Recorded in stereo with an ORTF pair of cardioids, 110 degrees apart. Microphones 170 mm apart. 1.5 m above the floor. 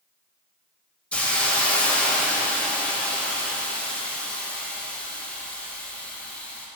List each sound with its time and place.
1.1 s a hiss: 10° left, 1.2 m